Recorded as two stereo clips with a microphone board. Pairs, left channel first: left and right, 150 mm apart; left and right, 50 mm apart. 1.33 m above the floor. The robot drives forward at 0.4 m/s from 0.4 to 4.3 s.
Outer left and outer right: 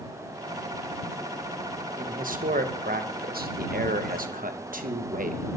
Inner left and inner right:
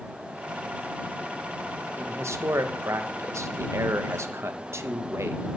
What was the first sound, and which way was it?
A man speaking, 65° right (ahead or behind).